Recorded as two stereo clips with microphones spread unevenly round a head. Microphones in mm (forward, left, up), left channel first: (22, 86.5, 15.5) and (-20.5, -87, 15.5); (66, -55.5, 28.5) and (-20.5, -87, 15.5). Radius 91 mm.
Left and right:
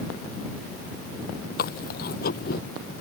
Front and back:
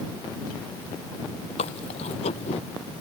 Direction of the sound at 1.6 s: 35° left.